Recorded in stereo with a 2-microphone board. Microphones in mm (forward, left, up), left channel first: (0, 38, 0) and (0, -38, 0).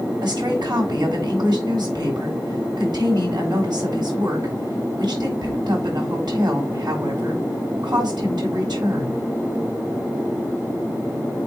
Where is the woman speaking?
70° right (ahead or behind), 4.5 m.